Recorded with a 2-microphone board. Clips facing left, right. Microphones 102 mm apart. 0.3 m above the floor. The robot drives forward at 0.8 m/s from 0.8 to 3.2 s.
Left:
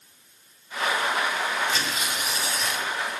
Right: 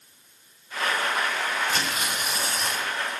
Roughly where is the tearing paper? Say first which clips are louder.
Even; right.